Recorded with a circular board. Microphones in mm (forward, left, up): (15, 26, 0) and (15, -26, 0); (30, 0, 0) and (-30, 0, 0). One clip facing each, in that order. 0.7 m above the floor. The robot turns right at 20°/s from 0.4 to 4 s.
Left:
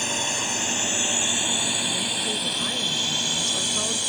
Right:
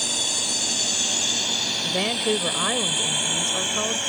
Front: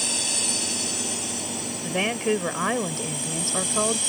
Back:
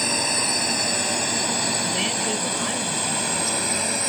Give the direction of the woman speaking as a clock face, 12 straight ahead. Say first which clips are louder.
Right 4 dB, front 1 dB; 2 o'clock.